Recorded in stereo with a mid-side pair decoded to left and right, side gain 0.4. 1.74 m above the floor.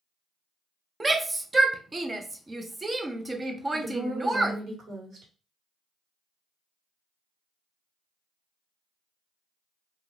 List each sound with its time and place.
1.0 s a shout: 25° right, 0.7 m
3.7 s a woman speaking: 65° right, 1.6 m